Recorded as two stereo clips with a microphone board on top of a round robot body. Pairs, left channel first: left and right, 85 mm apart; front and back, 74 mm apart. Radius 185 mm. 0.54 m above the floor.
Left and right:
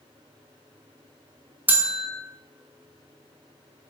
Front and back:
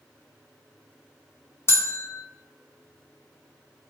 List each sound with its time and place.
1.7 s a bell: 35° right, 0.5 m